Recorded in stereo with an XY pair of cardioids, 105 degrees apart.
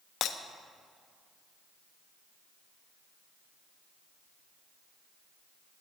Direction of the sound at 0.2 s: 70° left.